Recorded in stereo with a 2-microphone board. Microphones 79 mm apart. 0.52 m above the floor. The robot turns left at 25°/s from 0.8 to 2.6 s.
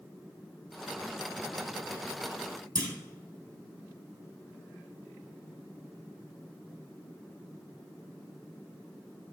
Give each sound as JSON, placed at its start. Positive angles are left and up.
{"t": 2.8, "sound": "a clunk", "side_deg": -55, "distance_m": 1.6}